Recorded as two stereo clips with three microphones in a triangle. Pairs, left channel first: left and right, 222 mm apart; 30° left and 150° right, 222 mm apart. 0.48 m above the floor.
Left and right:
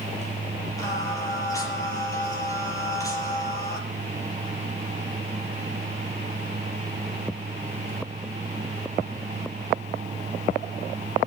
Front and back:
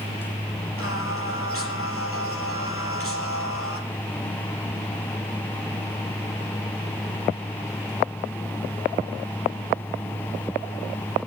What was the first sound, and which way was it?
Singing, 15° left.